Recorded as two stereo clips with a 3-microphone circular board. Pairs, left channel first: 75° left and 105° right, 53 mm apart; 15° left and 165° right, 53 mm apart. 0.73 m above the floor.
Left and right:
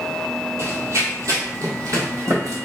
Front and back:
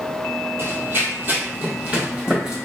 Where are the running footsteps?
130° right, 1.4 m; by 2.6 s 90° right, 2 m.